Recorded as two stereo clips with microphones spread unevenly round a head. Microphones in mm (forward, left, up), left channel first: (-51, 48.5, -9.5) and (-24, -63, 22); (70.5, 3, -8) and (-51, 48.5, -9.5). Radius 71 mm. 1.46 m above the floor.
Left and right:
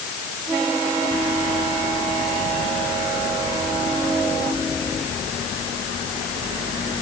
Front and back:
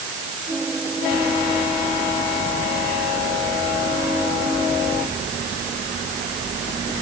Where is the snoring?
No snoring in this recording.